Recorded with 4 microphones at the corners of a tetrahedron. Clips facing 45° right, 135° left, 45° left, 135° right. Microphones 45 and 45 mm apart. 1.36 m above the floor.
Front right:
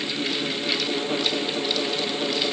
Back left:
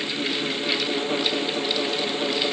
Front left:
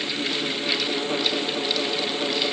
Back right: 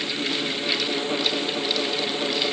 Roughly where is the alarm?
I don't hear an alarm.